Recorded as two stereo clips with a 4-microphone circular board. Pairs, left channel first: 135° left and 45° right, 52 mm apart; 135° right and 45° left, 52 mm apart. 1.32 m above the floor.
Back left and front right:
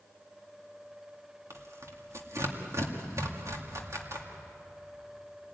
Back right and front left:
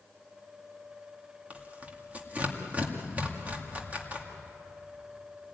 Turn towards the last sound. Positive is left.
turn(degrees=-15)